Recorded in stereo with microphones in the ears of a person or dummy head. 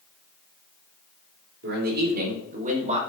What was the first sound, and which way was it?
A man speaking, 60° right (ahead or behind).